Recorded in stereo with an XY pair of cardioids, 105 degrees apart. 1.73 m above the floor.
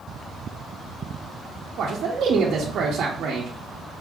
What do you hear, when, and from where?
1.8 s a man speaking: 65° right, 0.7 m